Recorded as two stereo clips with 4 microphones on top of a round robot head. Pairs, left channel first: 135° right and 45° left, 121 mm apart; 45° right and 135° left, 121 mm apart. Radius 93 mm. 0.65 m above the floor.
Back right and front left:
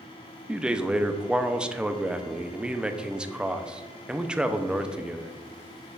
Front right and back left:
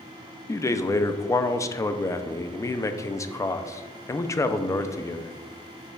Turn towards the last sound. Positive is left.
turn(degrees=-30)